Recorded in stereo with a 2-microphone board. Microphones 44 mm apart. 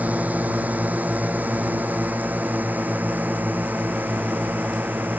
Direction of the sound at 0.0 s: 35° right (ahead or behind).